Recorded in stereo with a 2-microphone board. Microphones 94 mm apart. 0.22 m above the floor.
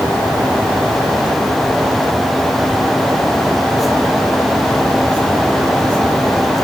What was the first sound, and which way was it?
Only background noise.